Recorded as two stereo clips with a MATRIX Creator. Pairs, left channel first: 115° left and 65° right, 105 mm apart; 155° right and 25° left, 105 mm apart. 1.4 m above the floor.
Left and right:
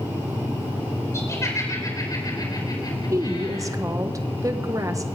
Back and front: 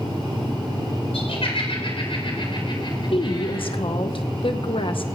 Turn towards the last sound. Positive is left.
turn(degrees=-125)